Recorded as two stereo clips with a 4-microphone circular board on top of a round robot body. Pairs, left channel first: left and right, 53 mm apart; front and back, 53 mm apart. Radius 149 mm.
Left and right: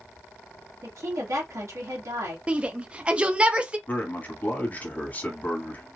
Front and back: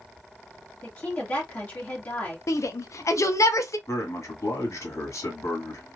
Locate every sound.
0.8 s a woman speaking: 60° right, 1.3 m
2.5 s a shout: 20° right, 0.7 m
3.9 s a man speaking: 25° left, 1.6 m